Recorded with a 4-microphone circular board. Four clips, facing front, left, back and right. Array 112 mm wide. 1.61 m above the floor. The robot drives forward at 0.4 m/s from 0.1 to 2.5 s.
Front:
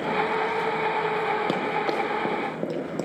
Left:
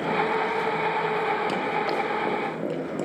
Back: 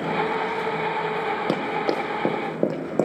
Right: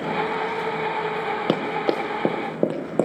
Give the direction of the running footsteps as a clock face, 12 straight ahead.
3 o'clock.